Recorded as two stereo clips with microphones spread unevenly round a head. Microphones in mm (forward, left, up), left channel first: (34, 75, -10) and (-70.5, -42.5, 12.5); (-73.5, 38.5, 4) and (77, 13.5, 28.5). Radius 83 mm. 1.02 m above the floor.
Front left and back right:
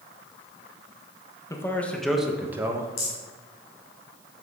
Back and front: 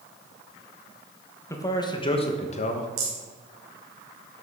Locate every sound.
1.5 s a man speaking: 110° left, 1.1 m; by 2.9 s 155° left, 1.3 m
3.0 s a rattle: 10° left, 4 m